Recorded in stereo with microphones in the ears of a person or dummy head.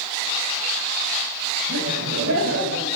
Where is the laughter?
90° right, 8.5 m; by 3.0 s 80° right, 8.5 m.